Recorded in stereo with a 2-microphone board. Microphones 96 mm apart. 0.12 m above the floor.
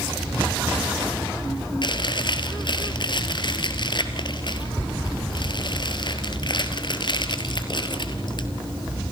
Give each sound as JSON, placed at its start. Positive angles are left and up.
{"t": 1.8, "sound": "chewing", "side_deg": 50, "distance_m": 2.0}